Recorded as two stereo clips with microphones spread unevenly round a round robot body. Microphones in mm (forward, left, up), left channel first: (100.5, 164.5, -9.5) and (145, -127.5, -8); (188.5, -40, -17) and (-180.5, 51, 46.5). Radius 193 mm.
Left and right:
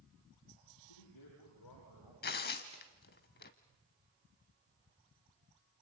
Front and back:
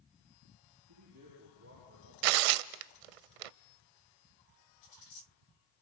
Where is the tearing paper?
165° left, 0.6 m.